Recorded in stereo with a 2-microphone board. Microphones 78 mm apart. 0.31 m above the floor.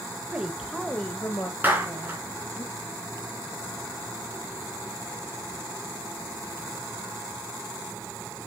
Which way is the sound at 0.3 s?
20° right (ahead or behind).